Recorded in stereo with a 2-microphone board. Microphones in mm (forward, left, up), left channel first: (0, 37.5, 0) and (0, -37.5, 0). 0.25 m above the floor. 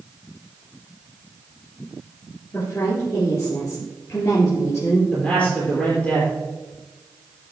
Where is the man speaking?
10° left (ahead or behind), 4.5 m.